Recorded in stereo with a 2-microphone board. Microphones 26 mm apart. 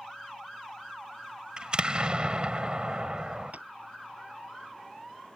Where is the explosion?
35° right (ahead or behind).